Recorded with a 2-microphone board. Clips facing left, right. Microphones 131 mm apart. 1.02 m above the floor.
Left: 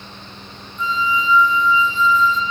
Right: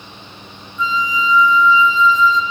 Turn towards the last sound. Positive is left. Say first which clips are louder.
# right 1 dB
turn(degrees=80)